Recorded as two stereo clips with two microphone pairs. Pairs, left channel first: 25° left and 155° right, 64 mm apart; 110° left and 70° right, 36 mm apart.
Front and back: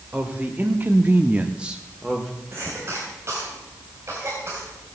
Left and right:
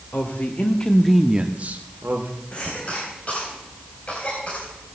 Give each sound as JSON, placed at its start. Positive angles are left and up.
{"t": 0.1, "sound": "a woman speaking", "azimuth_deg": 140, "distance_m": 1.9}
{"t": 2.5, "sound": "a cough", "azimuth_deg": 160, "distance_m": 3.5}